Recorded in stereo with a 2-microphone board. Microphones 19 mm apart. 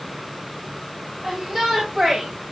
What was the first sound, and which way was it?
A shout, 45° right (ahead or behind).